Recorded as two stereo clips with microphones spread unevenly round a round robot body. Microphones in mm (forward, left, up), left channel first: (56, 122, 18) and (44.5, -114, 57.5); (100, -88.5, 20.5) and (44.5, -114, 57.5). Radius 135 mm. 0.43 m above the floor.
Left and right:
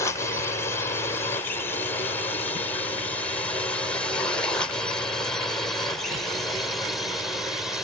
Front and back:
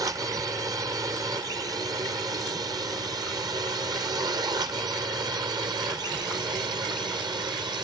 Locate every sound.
0.0 s a drone: 150° left; by 7.8 s 170° left